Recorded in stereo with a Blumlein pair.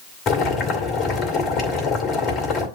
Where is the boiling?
35° left, 2.5 m.